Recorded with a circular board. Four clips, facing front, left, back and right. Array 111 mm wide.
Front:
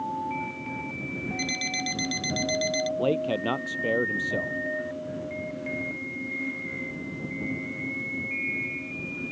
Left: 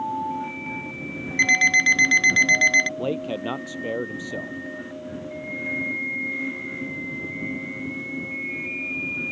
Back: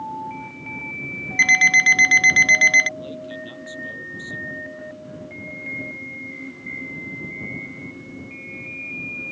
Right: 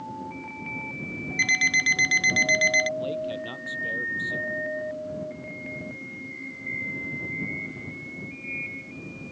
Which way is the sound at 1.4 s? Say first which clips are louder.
Left 5 dB, back 12 dB; 160° left.